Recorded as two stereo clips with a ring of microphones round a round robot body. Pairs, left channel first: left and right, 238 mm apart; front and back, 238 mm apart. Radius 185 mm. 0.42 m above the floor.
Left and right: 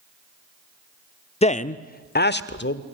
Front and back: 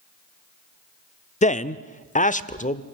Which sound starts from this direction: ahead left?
A man speaking, at 1.4 s.